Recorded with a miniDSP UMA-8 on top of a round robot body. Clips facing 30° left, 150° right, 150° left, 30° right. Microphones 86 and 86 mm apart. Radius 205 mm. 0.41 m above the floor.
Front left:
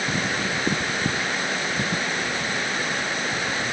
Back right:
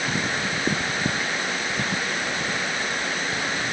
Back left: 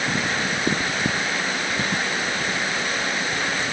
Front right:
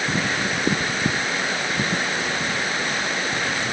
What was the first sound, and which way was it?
Only background noise.